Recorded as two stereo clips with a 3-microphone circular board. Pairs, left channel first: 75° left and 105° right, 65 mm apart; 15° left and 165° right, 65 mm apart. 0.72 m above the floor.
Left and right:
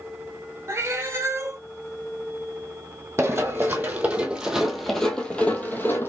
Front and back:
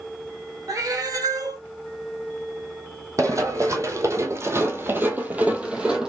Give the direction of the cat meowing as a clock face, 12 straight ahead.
5 o'clock.